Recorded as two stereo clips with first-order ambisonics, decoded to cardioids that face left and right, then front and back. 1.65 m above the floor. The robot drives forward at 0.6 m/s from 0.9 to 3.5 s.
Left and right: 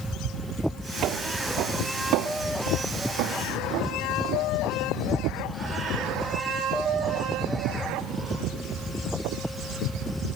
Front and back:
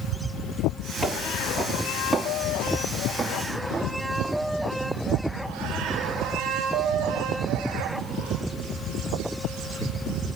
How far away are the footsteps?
About 2 m.